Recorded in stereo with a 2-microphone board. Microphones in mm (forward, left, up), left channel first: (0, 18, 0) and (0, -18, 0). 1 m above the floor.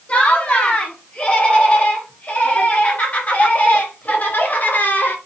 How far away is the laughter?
About 8.5 m.